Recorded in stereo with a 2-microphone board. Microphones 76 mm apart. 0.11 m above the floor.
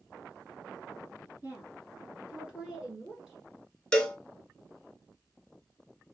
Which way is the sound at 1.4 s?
25° right (ahead or behind).